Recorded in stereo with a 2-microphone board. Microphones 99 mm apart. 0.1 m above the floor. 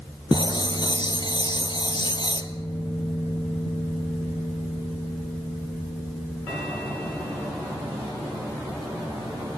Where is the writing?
55° left (ahead or behind), 1.5 m.